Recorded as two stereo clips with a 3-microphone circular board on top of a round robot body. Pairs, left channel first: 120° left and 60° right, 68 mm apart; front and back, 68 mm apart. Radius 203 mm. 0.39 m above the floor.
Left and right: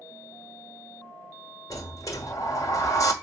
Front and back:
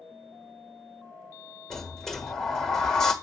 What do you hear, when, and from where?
1.7 s a sliding door: 85° left, 1.3 m